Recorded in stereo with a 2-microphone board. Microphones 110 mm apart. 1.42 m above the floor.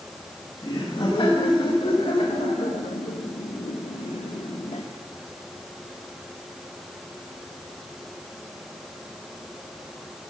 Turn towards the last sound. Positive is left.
turn(degrees=65)  # may be behind; listen again after turning